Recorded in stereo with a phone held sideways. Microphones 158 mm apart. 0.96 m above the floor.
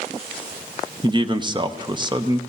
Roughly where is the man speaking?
Right.